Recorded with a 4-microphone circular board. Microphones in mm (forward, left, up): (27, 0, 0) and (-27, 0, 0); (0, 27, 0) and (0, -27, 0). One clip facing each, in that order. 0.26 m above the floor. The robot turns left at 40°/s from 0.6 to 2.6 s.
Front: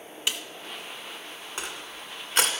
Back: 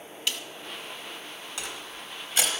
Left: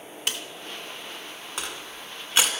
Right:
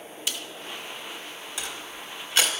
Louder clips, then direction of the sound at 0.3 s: Front 1 dB, left 2 dB; 70° left.